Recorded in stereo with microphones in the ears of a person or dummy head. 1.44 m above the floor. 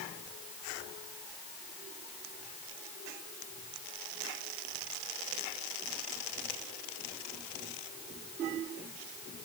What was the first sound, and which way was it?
Only background noise.